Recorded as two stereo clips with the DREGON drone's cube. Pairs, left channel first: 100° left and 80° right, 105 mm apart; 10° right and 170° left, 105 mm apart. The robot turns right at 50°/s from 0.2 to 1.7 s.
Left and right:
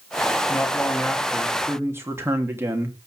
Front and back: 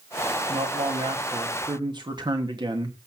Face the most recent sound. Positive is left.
turn(degrees=-145)